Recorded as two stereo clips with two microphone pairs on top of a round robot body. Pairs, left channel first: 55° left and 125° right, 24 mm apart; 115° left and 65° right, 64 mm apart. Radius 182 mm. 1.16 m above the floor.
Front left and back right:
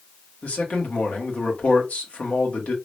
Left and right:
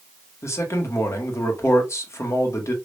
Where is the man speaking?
70° left, 1.9 m.